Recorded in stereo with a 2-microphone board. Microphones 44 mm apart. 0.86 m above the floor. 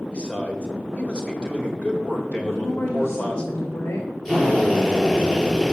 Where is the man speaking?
20° left (ahead or behind), 3.5 m.